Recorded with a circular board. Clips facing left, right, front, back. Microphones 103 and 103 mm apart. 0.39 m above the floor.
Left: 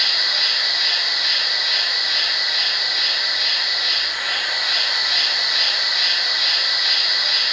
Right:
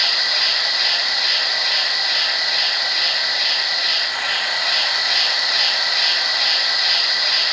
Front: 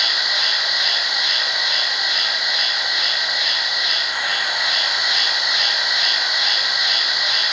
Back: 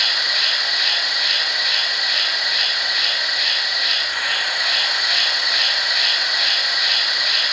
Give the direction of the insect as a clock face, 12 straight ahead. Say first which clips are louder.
Right 2 dB, front 1 dB; 2 o'clock.